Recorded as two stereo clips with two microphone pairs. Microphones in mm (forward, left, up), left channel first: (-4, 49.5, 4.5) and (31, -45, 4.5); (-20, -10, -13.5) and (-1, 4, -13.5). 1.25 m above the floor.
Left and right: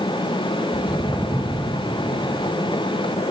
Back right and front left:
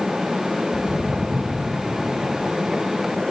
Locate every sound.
0.7 s footsteps: 55° left, 8.5 m